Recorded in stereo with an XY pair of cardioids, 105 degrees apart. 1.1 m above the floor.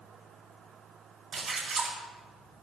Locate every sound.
1.3 s a splash: 60° right, 3 m